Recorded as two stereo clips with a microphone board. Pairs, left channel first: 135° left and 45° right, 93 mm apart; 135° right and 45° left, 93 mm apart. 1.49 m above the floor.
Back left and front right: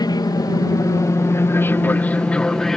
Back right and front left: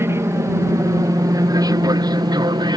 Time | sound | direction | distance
0.0 | an aircraft | 100° left | ?